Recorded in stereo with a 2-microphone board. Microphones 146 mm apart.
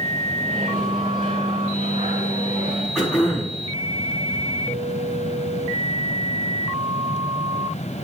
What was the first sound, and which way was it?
A microwave, 80° right.